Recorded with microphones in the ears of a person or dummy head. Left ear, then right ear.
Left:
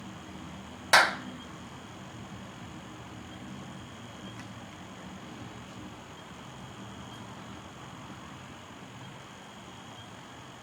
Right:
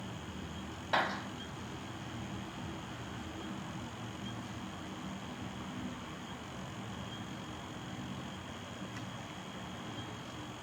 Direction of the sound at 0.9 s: 60° left (ahead or behind).